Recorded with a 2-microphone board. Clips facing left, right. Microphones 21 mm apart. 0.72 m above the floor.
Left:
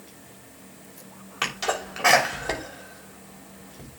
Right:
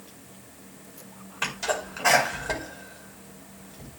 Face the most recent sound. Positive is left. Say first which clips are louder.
# left 1 dB
turn(degrees=70)  # may be behind; listen again after turning